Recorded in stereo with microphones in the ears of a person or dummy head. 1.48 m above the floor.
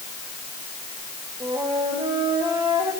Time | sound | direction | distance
1.4 | a flute | 25° right (ahead or behind) | 7 m